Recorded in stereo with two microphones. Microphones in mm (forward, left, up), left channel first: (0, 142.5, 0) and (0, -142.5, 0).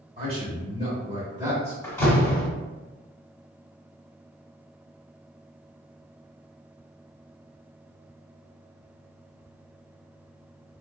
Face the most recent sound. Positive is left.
turn(degrees=10)  # may be behind; listen again after turning